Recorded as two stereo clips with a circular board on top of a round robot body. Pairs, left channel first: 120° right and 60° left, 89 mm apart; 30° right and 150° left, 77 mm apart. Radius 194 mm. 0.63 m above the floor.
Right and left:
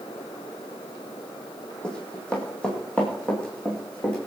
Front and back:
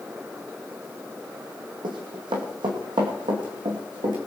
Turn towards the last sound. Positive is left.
turn(degrees=160)